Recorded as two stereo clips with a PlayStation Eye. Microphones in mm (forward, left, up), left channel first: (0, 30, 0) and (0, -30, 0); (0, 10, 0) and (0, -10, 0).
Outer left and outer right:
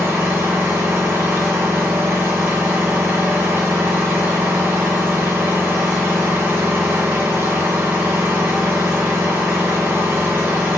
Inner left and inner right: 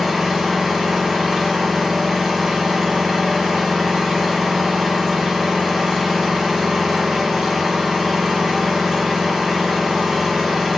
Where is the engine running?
40° right (ahead or behind), 4 m.